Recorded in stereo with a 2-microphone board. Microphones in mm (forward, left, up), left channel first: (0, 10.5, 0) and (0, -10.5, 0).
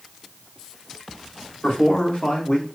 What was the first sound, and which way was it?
A man speaking, 75° left (ahead or behind).